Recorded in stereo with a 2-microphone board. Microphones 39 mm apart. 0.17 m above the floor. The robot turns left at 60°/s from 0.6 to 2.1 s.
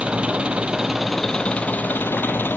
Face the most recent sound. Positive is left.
turn(degrees=120)